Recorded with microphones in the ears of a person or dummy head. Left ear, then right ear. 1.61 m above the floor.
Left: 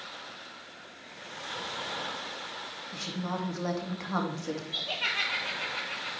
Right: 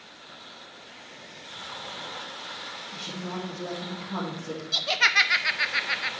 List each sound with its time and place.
2.9 s a woman speaking: 60° left (ahead or behind), 2.5 m
4.7 s laughter: 60° right (ahead or behind), 0.9 m